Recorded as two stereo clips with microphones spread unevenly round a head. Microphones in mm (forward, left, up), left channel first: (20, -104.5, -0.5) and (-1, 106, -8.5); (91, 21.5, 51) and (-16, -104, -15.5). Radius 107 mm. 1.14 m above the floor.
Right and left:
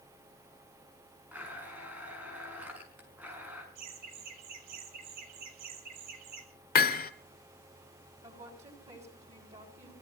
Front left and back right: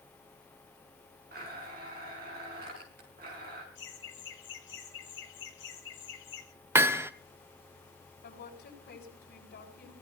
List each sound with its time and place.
1.3 s a blender: straight behind, 5 m
3.8 s laughter: 90° left, 6 m
6.8 s hammering: 45° right, 1.3 m
8.2 s a woman speaking: 35° left, 8.5 m